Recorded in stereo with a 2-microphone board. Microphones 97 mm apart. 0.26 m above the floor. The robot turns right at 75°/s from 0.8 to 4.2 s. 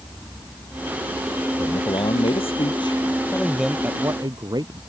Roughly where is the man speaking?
Ahead left.